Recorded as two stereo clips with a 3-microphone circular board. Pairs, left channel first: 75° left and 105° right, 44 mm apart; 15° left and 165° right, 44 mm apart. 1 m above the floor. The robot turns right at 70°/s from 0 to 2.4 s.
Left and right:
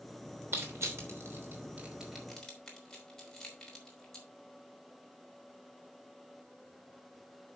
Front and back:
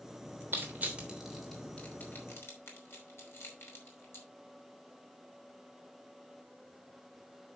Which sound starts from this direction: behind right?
Crushing, at 0.5 s.